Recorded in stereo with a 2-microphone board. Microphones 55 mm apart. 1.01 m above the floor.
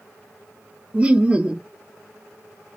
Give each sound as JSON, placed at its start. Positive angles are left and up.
{"t": 0.9, "sound": "laughter", "side_deg": -20, "distance_m": 0.5}